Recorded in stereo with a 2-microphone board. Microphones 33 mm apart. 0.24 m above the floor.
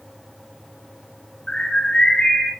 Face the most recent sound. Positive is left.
turn(degrees=30)  # may be behind; listen again after turning